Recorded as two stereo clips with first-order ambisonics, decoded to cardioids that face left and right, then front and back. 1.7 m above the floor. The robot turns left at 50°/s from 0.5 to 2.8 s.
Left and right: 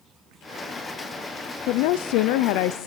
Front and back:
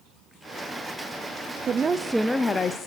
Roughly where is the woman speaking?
Behind left.